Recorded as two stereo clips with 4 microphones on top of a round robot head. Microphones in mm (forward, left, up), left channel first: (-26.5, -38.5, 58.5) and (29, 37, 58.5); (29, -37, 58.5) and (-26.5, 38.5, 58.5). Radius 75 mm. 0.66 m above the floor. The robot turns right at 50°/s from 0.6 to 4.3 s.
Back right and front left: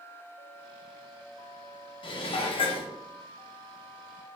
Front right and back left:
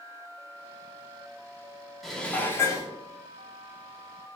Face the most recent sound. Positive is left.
turn(degrees=-30)